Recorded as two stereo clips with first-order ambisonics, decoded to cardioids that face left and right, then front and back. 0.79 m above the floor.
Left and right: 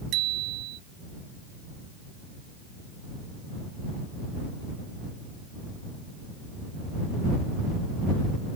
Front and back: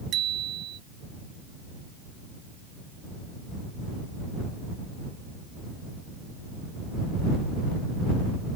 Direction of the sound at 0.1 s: 130° right.